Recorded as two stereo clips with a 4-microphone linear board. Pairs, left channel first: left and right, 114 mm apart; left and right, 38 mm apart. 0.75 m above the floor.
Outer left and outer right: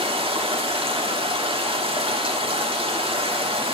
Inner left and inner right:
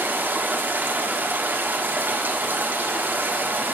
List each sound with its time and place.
0.0 s running water: 60° right (ahead or behind), 1.4 m